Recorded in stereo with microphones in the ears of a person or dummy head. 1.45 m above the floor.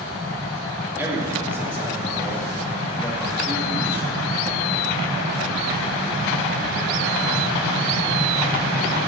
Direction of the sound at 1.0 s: 15° right (ahead or behind).